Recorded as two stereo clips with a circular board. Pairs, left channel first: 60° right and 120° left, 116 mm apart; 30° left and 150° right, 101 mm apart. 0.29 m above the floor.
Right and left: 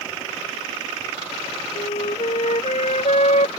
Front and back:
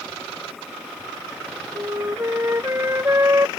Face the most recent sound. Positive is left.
turn(degrees=-85)